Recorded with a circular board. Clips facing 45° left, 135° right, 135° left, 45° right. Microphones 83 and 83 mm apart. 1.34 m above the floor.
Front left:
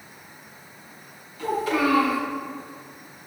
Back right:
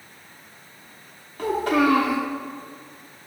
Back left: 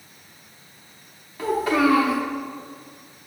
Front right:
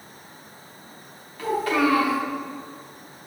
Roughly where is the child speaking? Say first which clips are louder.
Back right 3 dB, back left 2 dB; behind right.